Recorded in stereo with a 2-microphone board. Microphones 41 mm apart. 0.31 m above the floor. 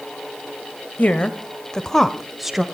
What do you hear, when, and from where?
1.0 s a woman speaking: 40° left (ahead or behind), 1.2 m; by 2.6 s 10° right (ahead or behind), 1.1 m